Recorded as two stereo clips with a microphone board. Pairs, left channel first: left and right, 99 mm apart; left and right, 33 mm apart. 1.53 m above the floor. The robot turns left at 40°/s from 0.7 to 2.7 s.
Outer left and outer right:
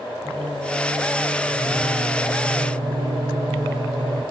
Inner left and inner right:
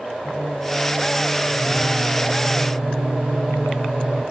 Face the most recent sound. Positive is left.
turn(degrees=-70)